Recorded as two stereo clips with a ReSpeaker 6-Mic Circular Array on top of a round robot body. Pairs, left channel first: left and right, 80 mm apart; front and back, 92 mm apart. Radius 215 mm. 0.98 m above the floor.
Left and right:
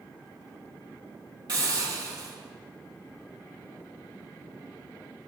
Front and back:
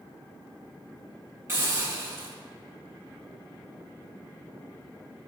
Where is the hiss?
120° right, 5.5 m.